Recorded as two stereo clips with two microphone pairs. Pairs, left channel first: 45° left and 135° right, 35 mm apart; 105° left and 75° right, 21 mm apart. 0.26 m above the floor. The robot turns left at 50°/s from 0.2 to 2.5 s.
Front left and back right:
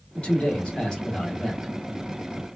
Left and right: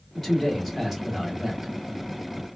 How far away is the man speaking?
About 1.3 m.